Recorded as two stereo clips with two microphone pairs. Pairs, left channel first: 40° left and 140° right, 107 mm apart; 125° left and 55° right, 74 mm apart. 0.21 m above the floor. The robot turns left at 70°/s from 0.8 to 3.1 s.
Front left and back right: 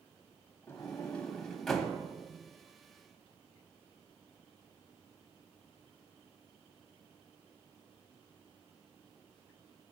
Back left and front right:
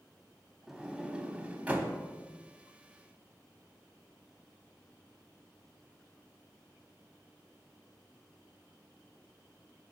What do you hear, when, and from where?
0.7 s a sliding door: 15° left, 0.8 m; by 1.9 s 65° right, 0.8 m